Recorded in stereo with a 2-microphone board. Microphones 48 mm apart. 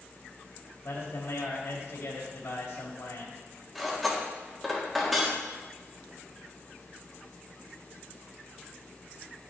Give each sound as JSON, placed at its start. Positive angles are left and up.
{"t": 0.8, "sound": "a man speaking", "side_deg": 85, "distance_m": 2.5}
{"t": 3.8, "sound": "cutlery clinking", "side_deg": -5, "distance_m": 1.5}